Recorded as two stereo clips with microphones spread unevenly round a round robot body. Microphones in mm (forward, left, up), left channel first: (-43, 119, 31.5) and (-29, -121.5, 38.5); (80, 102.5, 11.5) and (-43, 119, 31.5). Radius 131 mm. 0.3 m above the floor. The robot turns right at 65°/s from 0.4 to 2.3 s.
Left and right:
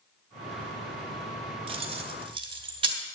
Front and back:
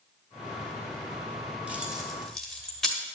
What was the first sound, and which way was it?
Keys jangling, 100° right.